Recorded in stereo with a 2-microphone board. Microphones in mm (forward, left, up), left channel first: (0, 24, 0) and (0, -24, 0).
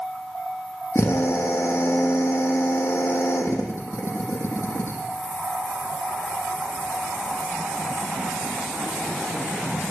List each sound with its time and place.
0.9 s a drill: 55° left (ahead or behind), 6.5 m